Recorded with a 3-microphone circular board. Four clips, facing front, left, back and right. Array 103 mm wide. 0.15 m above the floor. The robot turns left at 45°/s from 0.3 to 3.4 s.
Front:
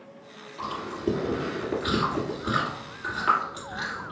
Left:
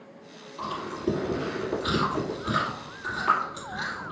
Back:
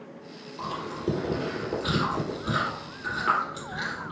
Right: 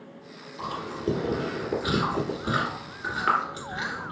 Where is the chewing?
40° left, 1.9 m; by 4.1 s 85° right, 1.9 m.